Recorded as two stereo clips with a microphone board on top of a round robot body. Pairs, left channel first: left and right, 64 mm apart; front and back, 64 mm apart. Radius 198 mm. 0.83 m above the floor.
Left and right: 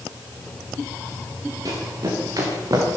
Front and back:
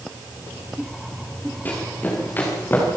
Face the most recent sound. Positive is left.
turn(degrees=-60)